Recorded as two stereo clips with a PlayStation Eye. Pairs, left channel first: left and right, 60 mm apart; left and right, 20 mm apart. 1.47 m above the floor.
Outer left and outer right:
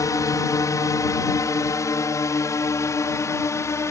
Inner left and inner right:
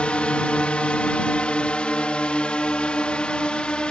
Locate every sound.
0.0 s a drone: 60° left (ahead or behind); by 3.9 s 50° left (ahead or behind)